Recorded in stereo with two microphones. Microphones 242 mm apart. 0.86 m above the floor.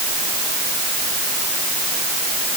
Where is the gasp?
I don't hear a gasp.